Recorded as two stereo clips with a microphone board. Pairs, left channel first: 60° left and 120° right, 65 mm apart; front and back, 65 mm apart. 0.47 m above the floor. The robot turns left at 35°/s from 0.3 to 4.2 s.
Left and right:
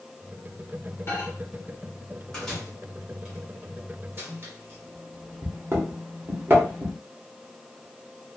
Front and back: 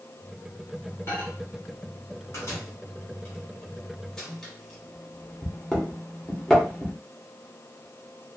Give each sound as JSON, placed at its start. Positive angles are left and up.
{"t": 1.1, "sound": "a microwave", "azimuth_deg": 30, "distance_m": 1.1}